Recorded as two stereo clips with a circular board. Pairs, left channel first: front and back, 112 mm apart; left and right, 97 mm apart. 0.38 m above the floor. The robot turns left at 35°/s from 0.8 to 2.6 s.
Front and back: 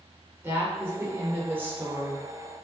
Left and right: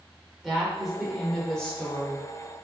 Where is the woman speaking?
Straight behind, 1.2 m; by 2.3 s 130° left, 1.2 m.